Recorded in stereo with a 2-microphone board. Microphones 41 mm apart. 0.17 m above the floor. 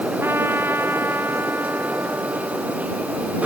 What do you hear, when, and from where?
0.2 s a trumpet: 70° right (ahead or behind)